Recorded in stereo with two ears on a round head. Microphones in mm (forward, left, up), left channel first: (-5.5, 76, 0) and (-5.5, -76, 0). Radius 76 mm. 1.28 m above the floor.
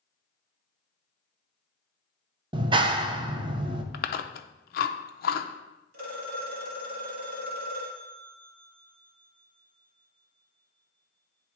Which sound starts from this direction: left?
Chewing, at 3.9 s.